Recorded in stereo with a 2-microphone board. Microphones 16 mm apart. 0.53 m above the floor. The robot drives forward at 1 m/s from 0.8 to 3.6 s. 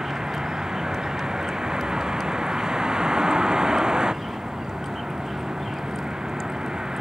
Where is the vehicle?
50° right (ahead or behind); by 7.0 s 55° right (ahead or behind).